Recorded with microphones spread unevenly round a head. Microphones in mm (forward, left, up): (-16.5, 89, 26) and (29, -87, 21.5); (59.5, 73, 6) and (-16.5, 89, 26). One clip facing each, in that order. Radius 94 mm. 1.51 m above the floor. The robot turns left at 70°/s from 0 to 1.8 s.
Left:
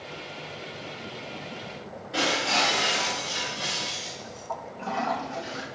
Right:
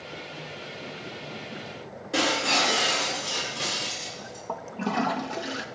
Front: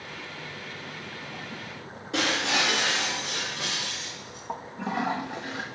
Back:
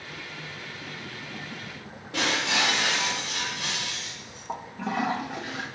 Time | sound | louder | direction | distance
2.1 | breaking glass | right 1 dB, even | 45° right | 7 m
4.5 | a toilet flushing | right 3 dB, back 1 dB | 100° right | 1.2 m